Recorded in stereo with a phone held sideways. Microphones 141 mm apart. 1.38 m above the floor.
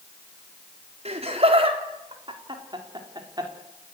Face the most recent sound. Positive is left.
turn(degrees=-25)  # may be behind; listen again after turning